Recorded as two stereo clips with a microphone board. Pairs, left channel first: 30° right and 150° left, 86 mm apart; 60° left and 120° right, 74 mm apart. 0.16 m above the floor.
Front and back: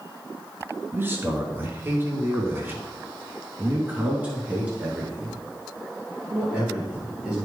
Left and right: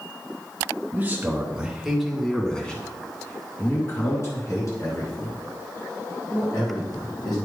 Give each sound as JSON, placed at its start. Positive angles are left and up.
{"t": 0.9, "sound": "a man speaking", "azimuth_deg": -165, "distance_m": 1.6}